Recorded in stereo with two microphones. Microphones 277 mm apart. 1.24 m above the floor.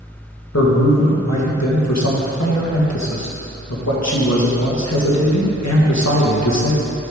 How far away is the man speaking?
About 1.7 m.